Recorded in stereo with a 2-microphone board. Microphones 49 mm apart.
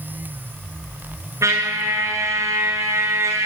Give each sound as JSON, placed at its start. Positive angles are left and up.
{"t": 1.4, "sound": "a trumpet", "side_deg": -75, "distance_m": 4.5}